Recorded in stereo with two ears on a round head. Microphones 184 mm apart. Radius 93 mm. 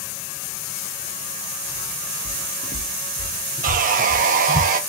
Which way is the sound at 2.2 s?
45° left (ahead or behind).